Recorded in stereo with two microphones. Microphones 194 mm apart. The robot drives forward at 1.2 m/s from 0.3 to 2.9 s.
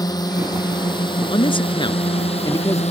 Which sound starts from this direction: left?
A man speaking, at 1.3 s.